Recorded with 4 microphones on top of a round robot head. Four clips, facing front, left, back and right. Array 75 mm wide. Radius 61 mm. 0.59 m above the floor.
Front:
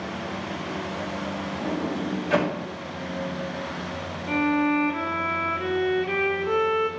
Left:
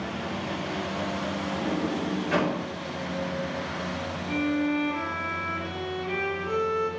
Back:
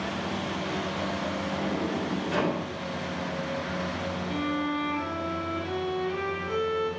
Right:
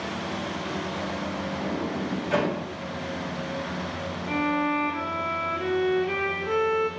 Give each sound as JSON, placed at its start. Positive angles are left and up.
{"t": 1.5, "sound": "a sliding door", "azimuth_deg": -10, "distance_m": 4.0}
{"t": 4.3, "sound": "a violin", "azimuth_deg": -30, "distance_m": 1.1}